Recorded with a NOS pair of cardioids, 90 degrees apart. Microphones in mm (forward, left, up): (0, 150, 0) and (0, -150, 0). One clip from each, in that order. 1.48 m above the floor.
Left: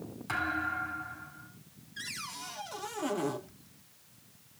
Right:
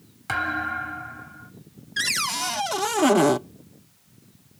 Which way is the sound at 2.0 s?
70° right.